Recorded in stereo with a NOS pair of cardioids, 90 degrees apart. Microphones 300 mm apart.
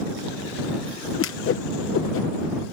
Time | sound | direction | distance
1.2 | a whoosh | 45° left | ?